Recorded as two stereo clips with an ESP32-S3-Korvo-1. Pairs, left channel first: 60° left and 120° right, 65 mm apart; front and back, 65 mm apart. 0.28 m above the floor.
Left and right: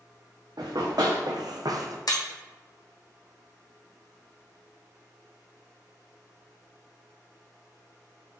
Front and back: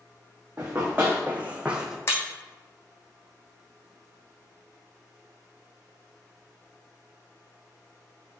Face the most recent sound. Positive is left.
turn(degrees=50)